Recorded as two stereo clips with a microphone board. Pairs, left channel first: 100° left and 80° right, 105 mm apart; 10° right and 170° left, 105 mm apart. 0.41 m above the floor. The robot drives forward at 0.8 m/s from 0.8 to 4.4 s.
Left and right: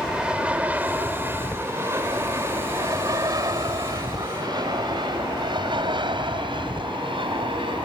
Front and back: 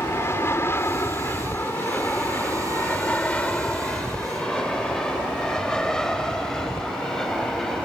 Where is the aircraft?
10° right; by 7.9 s 95° right.